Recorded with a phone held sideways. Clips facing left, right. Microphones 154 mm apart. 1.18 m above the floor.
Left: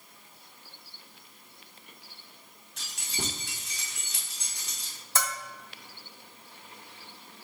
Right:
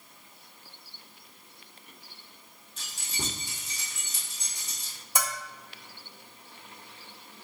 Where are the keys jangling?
70° left (ahead or behind), 1.1 m.